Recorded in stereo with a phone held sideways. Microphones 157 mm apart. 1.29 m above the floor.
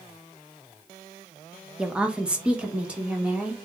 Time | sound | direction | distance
1.8 | a woman speaking | 5° right (ahead or behind) | 0.6 m